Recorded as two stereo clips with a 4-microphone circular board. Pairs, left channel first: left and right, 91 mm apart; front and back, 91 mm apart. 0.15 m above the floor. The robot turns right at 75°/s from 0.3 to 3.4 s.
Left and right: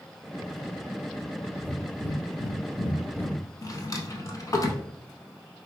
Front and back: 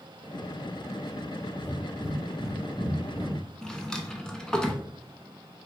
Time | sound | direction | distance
1.6 | breathing | 15° left | 0.8 m
3.6 | a drawer | 80° left | 0.6 m